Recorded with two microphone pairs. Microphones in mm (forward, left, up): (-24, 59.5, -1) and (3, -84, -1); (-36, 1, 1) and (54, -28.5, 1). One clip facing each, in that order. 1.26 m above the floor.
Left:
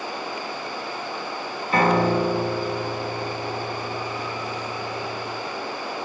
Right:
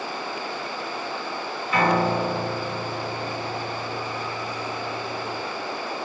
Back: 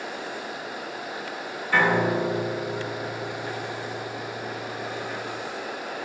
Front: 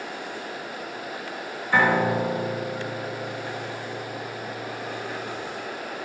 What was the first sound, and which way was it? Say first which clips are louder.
A piano: left 2 dB, front 1 dB; 55° left.